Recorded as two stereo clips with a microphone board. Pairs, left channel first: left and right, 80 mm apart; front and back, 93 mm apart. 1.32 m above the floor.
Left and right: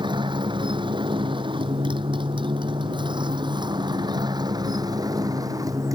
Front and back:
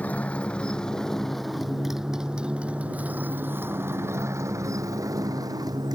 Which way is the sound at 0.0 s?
75° right.